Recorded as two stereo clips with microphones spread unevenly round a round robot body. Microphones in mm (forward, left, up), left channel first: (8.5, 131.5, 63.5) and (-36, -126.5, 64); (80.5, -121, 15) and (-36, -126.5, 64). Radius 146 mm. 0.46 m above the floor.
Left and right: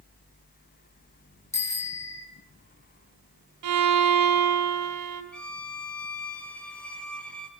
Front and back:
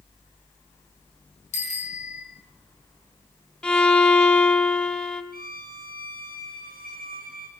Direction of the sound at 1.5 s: Straight ahead.